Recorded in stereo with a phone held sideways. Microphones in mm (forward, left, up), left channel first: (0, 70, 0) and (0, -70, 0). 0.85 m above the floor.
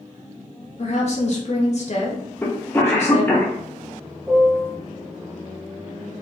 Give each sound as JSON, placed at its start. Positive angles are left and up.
{"t": 0.8, "sound": "a woman speaking", "side_deg": 55, "distance_m": 0.6}
{"t": 2.4, "sound": "a cough", "side_deg": 15, "distance_m": 0.7}
{"t": 4.3, "sound": "a piano", "side_deg": -15, "distance_m": 1.0}